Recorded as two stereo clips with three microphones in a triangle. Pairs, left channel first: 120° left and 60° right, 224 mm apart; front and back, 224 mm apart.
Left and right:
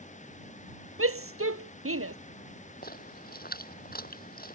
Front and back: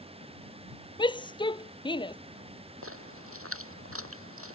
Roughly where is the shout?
Right.